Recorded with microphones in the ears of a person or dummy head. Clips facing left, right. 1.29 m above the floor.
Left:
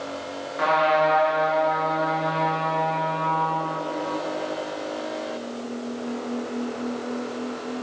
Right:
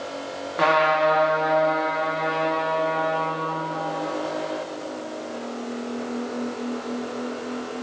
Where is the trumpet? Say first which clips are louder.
Right 1 dB; 50° right (ahead or behind), 3 m.